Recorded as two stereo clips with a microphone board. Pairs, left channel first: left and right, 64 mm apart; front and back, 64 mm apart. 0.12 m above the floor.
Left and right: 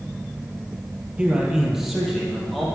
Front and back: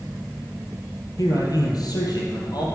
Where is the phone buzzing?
I don't hear a phone buzzing.